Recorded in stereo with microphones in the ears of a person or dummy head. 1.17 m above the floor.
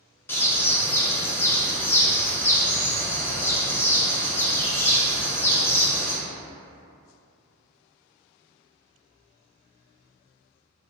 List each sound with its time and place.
0.3 s a bird: 15° left (ahead or behind), 0.8 m